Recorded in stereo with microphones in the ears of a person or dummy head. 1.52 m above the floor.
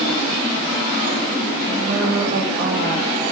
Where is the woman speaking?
40° right (ahead or behind), 6.5 m.